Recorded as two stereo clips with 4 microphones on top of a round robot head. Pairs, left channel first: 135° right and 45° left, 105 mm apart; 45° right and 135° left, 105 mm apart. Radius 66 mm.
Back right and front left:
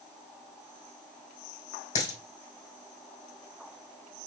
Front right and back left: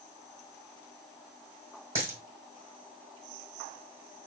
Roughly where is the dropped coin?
Behind.